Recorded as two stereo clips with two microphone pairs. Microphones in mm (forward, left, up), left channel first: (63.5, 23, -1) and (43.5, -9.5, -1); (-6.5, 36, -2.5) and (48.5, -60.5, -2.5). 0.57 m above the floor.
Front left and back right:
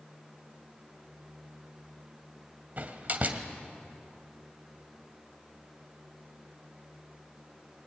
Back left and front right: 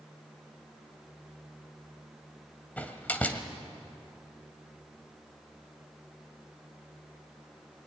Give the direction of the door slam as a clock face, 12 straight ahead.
6 o'clock.